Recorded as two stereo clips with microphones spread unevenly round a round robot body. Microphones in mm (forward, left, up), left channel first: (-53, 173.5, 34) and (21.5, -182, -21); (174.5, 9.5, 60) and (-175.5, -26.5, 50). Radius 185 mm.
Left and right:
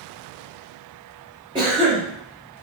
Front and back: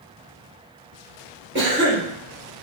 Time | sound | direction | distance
1.6 | a cough | 140° right | 0.9 m